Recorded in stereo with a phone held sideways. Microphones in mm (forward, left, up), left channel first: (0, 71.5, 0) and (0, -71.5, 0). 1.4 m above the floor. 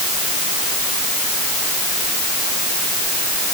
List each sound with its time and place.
Only background noise.